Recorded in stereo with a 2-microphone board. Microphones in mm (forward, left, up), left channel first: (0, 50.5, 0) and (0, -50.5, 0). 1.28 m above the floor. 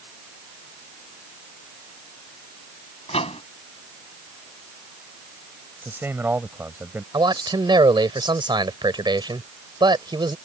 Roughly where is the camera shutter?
No camera shutter in this recording.